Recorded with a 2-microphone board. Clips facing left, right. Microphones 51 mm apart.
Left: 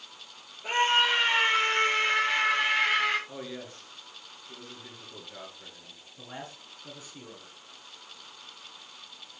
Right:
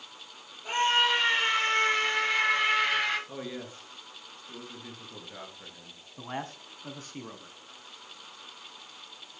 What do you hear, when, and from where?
0.6 s a scream: 25° left (ahead or behind), 6.5 m; by 3.2 s 10° left (ahead or behind), 8.5 m
3.3 s a man speaking: 10° right (ahead or behind), 4 m
6.2 s a man speaking: 50° right (ahead or behind), 1.8 m